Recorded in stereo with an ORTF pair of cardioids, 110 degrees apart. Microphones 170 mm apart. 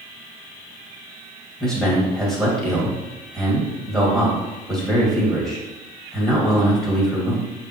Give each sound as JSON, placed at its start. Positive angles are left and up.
{"t": 1.6, "sound": "a man speaking", "azimuth_deg": 0, "distance_m": 2.0}